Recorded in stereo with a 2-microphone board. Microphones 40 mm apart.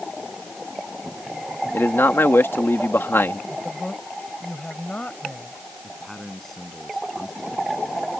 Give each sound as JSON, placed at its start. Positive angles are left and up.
{"t": 1.7, "sound": "a man speaking", "side_deg": 75}
{"t": 3.5, "sound": "a woman speaking", "side_deg": 35}
{"t": 5.8, "sound": "a man speaking", "side_deg": 5}